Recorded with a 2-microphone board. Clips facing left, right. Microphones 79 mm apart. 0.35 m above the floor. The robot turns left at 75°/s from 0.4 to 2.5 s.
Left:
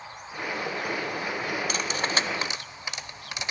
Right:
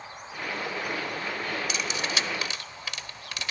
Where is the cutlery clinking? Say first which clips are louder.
Left 2 dB; 45° left (ahead or behind), 0.6 m; by 3.5 s 20° left (ahead or behind), 0.6 m.